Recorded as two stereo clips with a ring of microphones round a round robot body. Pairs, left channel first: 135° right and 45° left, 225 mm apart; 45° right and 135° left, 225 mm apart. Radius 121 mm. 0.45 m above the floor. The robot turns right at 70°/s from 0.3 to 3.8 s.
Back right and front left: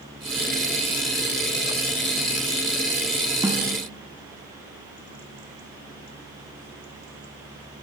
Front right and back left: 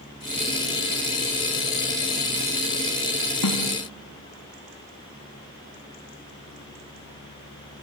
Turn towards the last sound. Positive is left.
turn(degrees=-10)